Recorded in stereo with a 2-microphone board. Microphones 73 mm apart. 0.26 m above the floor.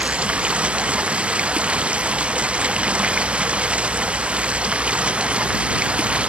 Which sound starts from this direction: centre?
Running water, at 0.0 s.